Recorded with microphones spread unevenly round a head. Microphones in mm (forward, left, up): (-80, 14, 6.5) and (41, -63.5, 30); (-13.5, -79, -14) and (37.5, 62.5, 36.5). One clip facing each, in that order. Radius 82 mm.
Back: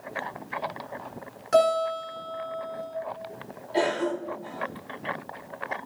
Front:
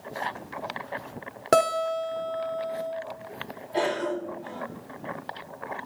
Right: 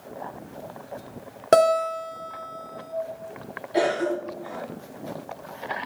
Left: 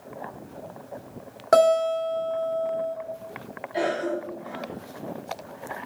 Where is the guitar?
50° right, 3.5 m.